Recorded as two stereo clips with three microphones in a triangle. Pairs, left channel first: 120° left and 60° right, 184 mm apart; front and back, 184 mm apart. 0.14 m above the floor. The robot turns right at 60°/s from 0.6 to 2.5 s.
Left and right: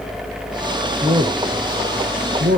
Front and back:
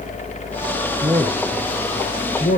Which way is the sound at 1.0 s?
120° right.